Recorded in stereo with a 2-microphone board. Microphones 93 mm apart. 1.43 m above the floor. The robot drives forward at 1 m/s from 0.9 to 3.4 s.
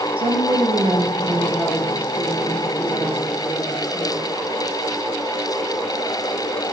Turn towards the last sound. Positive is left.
turn(degrees=-10)  # may be behind; listen again after turning